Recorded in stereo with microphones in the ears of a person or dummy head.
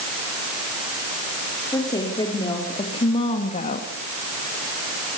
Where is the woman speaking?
15° left (ahead or behind), 4 m; by 3.9 s 45° left (ahead or behind), 1.9 m.